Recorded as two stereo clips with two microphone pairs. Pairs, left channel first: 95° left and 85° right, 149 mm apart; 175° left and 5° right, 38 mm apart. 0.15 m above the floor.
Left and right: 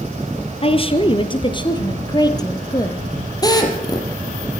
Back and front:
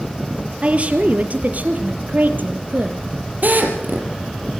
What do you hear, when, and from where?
0.6 s a woman speaking: 50° left, 3 m; by 3.0 s 30° left, 3.5 m
3.4 s a drill: 35° left, 4 m